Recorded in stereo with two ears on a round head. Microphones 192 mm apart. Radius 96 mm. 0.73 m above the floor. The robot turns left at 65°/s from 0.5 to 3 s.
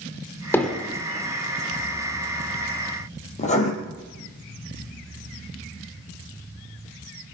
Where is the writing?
35° left (ahead or behind), 4 m.